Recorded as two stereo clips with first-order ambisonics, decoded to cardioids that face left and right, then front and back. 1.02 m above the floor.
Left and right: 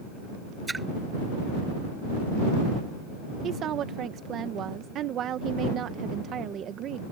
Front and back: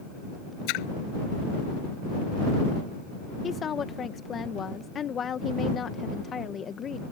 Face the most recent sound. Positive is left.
turn(degrees=-55)